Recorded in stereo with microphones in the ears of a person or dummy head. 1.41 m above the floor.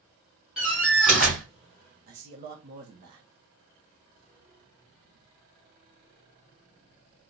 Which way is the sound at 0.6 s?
5° right (ahead or behind).